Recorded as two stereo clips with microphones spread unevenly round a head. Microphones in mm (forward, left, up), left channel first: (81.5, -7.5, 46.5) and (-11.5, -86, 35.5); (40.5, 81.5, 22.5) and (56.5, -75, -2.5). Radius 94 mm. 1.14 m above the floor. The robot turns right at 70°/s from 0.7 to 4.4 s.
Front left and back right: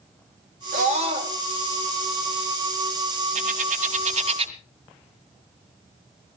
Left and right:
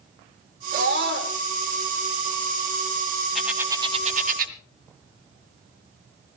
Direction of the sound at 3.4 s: 175° left.